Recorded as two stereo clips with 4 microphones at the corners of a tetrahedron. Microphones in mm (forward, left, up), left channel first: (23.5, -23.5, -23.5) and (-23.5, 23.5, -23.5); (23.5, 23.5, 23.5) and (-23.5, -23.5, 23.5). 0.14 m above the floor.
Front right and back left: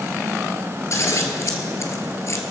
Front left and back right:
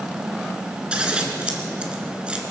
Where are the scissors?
65° right, 1.8 m.